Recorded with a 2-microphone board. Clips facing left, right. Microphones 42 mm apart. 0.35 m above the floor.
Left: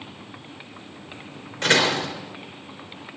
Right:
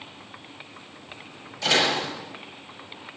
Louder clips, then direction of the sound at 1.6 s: Left 2 dB; 55° left (ahead or behind).